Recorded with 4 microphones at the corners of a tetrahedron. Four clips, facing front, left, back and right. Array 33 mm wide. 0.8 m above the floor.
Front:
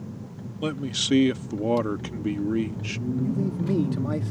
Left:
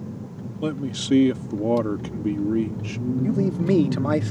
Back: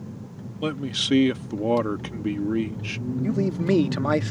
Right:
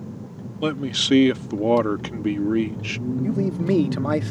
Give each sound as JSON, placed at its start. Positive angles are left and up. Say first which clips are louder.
{"t": 0.6, "sound": "a man speaking", "louder": "right 5 dB, back 1 dB", "azimuth_deg": -110}
{"t": 3.2, "sound": "a man speaking", "louder": "left 1 dB, back 6 dB", "azimuth_deg": -175}